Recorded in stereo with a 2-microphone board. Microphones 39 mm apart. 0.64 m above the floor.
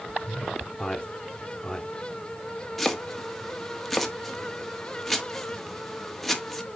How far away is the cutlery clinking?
No cutlery clinking in this recording.